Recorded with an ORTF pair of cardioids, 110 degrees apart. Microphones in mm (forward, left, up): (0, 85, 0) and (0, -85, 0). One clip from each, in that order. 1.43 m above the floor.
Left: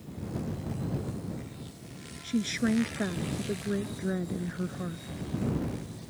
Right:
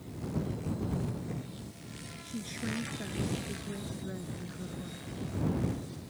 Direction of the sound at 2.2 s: 60° left.